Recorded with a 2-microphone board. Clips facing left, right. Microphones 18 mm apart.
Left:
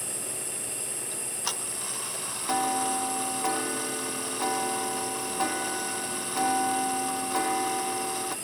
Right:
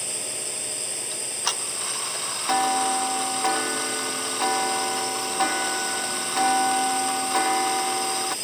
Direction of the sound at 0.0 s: 50° right (ahead or behind).